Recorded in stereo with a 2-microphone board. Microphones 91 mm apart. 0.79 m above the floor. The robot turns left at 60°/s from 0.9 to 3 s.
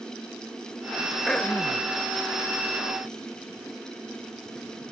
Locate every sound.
1.3 s throat clearing: 175° left, 0.5 m; by 1.9 s 135° left, 0.5 m